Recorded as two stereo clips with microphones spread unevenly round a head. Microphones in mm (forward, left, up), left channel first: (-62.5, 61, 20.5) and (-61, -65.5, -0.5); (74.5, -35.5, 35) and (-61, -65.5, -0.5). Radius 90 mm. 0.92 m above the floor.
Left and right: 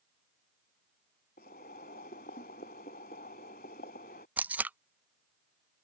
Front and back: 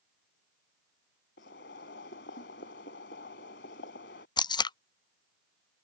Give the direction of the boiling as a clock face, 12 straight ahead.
11 o'clock.